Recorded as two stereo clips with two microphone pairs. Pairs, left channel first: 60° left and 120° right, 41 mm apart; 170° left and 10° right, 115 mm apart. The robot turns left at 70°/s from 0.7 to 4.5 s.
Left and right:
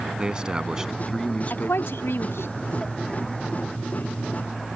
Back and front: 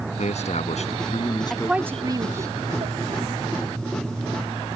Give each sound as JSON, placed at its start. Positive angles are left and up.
{"t": 0.2, "sound": "a man speaking", "azimuth_deg": 175}
{"t": 1.5, "sound": "a woman speaking", "azimuth_deg": 85}